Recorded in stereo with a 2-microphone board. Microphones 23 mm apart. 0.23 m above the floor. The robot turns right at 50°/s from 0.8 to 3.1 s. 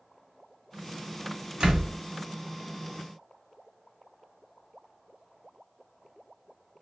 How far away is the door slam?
About 1.3 m.